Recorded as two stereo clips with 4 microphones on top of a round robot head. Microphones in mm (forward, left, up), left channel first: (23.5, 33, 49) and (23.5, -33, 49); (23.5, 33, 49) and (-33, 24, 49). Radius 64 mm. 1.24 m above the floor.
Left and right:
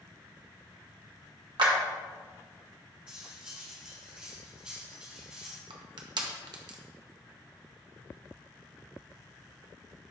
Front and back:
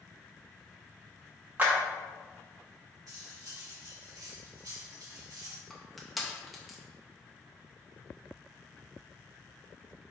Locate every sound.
1.6 s a clap: 105° right, 1.2 m
3.1 s cutlery clinking: 165° right, 1.7 m
5.7 s crushing: 80° right, 0.8 m